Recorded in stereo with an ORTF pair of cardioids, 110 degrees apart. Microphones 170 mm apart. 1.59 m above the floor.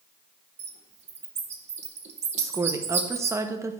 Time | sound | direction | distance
0.6 | a bird | 40° right | 1.8 m
2.4 | a woman speaking | 20° right | 1.2 m